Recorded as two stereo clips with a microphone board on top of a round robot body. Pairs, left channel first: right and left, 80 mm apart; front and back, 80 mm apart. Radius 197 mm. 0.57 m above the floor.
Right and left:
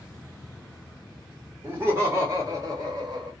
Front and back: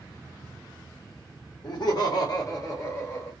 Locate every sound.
1.6 s laughter: 25° left, 1.9 m; by 3.3 s 55° left, 1.7 m